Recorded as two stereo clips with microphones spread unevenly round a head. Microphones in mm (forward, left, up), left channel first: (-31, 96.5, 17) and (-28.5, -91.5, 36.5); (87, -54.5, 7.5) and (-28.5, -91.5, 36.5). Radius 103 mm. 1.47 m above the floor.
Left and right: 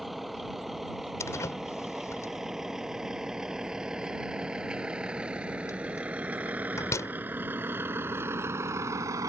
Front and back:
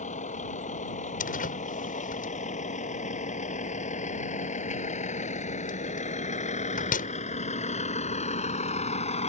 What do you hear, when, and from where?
0.0 s a vehicle: straight ahead; by 9.3 s 15° right
1.2 s a door slam: 10° left